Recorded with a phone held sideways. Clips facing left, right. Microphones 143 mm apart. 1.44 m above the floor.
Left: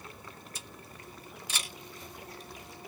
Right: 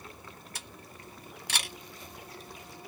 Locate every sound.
0.6 s a camera shutter: 75° right (ahead or behind), 1.8 m